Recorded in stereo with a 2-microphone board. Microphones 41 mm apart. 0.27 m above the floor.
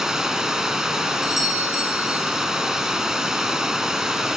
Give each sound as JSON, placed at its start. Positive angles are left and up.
{"t": 0.0, "sound": "running water", "side_deg": -10, "distance_m": 2.5}
{"t": 1.2, "sound": "a doorbell", "side_deg": -5, "distance_m": 6.5}